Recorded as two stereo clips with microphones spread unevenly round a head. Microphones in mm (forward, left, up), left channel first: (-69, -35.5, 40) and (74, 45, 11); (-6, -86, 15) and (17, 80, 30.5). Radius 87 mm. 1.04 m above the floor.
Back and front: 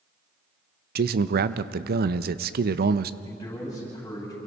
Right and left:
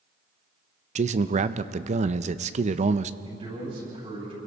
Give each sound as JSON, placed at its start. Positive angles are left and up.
{"t": 0.9, "sound": "a man speaking", "azimuth_deg": 35, "distance_m": 0.7}
{"t": 3.2, "sound": "a man speaking", "azimuth_deg": 140, "distance_m": 9.0}